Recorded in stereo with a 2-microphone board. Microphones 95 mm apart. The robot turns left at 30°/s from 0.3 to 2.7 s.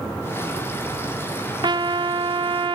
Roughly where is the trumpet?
Ahead right.